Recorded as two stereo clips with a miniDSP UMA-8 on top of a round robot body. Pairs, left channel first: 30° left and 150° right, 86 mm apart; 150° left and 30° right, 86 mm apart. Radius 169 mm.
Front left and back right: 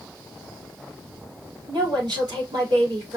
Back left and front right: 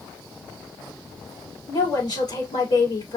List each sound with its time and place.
1.7 s a woman speaking: 175° left, 3.5 m